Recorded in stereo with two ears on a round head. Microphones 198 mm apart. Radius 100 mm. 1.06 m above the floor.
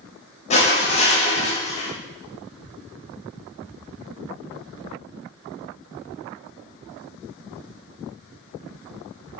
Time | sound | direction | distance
0.5 | crushing | 30° left (ahead or behind) | 6 m